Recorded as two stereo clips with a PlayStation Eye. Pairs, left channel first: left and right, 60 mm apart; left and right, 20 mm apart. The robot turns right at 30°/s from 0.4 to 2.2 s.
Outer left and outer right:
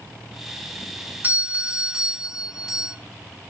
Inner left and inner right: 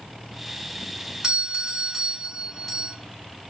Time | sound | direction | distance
1.2 | a doorbell | 30° right (ahead or behind) | 2.5 m